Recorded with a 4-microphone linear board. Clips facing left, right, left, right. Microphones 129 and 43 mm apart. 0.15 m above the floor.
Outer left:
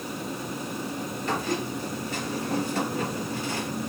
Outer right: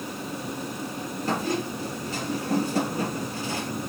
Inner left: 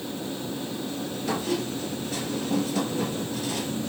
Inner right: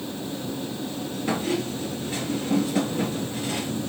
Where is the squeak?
35° right (ahead or behind), 2.5 m.